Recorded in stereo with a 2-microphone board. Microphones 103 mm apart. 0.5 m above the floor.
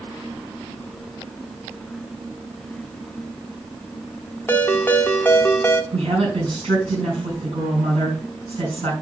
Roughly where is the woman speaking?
Right.